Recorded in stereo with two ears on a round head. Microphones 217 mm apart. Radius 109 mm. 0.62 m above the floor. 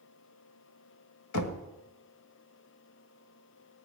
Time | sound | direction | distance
1.3 | knocking | 80° left | 1.7 m